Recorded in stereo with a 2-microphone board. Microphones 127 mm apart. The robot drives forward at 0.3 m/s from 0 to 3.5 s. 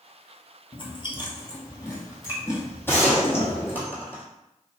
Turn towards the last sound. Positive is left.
turn(degrees=15)  # may be behind; listen again after turning